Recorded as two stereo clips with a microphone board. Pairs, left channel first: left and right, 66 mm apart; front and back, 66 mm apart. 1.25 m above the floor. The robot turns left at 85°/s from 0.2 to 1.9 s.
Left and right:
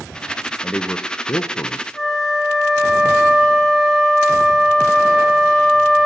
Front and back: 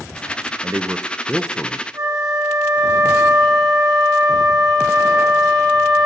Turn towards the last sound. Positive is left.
turn(degrees=175)